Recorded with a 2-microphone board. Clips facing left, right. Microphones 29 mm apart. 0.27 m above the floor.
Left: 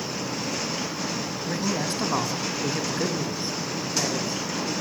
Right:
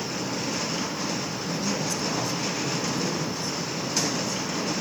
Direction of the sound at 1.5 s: 50° left (ahead or behind).